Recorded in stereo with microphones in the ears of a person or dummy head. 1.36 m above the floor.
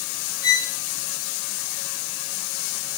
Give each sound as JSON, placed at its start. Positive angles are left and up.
{"t": 0.4, "sound": "a violin", "side_deg": 90, "distance_m": 6.5}